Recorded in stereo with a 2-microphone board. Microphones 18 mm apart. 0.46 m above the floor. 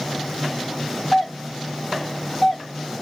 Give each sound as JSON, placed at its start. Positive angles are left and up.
{"t": 1.1, "sound": "a doorbell", "side_deg": 0, "distance_m": 1.5}